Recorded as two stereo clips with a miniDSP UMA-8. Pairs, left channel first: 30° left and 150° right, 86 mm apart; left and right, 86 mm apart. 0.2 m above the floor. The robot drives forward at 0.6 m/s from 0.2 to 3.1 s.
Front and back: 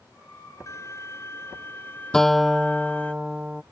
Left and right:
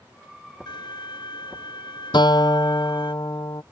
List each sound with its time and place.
0.7 s a violin: 80° left; by 3.1 s 105° left
2.1 s a guitar: 115° left; by 3.6 s 130° left